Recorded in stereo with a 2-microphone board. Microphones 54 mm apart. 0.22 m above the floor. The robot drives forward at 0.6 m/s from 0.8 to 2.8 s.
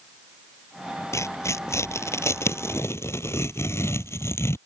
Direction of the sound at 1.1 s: 65° left (ahead or behind).